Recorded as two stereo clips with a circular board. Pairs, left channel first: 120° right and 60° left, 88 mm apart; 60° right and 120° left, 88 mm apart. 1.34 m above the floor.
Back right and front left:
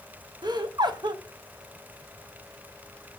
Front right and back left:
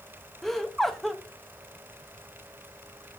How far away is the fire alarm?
No fire alarm in this recording.